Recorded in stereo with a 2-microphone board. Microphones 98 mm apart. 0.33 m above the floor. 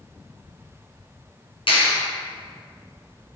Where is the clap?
65° left (ahead or behind), 3 m.